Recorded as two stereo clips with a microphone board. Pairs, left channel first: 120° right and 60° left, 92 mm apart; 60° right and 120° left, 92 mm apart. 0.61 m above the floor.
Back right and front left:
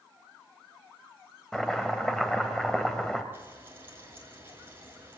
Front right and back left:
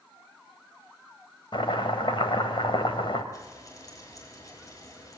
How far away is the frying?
About 7 m.